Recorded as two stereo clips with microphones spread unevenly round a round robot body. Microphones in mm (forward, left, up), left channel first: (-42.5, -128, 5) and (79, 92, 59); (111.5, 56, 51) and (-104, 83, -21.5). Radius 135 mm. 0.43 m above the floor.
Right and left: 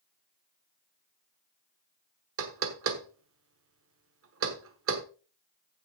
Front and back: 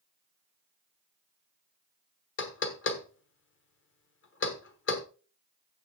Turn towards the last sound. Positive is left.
turn(degrees=30)